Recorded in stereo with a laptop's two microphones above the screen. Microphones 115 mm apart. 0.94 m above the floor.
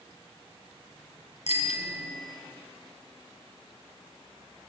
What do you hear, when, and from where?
1.5 s a bicycle bell: 90° left, 5.5 m